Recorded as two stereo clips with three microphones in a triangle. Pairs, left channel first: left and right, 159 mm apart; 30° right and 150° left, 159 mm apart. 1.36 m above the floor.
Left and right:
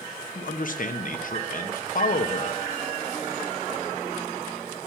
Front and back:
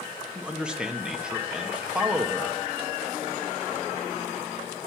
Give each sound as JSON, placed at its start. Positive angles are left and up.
{"t": 0.3, "sound": "a man speaking", "azimuth_deg": 65, "distance_m": 1.0}